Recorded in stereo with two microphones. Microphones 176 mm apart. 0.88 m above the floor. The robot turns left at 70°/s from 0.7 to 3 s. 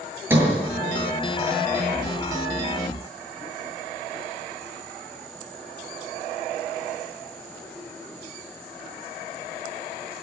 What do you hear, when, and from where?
0.3 s a sliding door: 10° right (ahead or behind), 8 m